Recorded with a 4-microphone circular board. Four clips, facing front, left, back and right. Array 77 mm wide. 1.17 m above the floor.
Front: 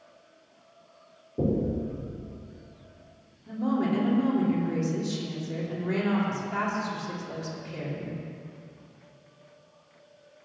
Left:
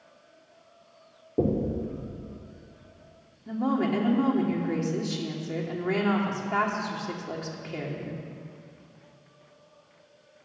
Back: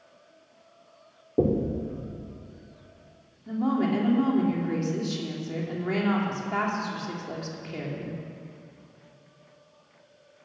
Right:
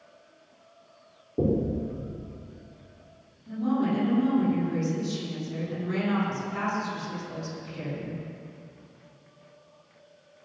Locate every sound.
1.4 s knocking: 160° left, 2 m
3.5 s a woman speaking: 120° left, 3.5 m